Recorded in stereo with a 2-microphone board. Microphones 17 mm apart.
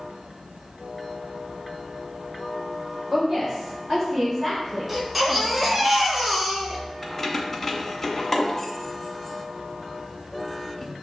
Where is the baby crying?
5° right (ahead or behind), 0.9 m.